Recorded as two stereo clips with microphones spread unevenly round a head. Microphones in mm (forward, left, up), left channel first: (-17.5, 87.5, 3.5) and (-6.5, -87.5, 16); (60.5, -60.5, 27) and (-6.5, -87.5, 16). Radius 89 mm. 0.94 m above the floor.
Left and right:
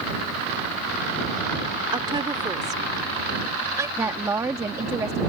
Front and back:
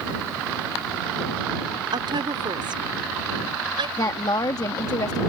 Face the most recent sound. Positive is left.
turn(degrees=-10)